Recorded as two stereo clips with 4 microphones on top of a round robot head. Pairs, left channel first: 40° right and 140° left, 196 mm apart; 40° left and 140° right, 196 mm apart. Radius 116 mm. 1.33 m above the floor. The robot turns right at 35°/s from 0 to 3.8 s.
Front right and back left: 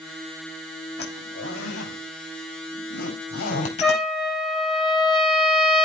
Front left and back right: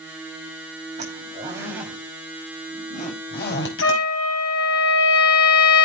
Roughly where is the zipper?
Right.